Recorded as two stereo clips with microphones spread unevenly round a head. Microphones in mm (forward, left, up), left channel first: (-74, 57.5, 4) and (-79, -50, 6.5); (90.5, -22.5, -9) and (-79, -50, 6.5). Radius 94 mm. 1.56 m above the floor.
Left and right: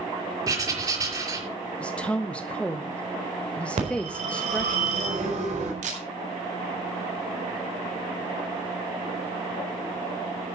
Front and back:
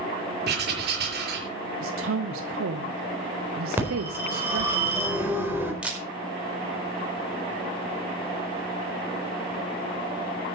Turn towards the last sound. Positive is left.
turn(degrees=-90)